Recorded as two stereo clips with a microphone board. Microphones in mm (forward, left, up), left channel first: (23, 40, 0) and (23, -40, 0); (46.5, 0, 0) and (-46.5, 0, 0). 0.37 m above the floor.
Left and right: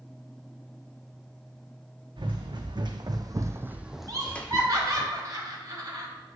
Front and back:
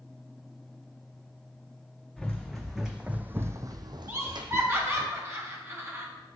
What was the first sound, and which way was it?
Running footsteps, 85° right.